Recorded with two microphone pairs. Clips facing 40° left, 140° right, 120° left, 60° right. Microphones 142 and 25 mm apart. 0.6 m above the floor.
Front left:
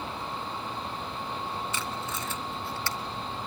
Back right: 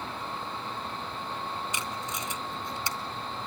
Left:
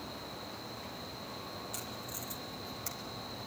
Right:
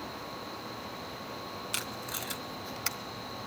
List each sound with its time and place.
1.7 s tape being pulled: 65° right, 1.2 m